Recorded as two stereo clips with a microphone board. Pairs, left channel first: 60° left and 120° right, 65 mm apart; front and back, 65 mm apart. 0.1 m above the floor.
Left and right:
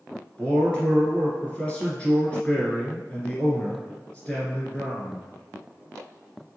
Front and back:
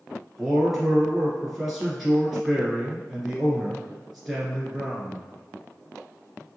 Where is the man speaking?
100° left, 1.2 m.